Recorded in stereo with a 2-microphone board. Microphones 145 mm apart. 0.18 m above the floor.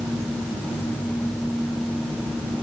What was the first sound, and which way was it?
Only background noise.